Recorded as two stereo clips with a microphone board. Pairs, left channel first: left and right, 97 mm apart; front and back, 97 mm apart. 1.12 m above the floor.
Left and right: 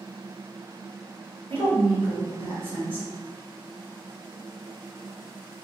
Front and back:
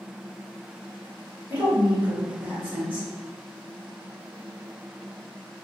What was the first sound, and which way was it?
A woman speaking, 110° right.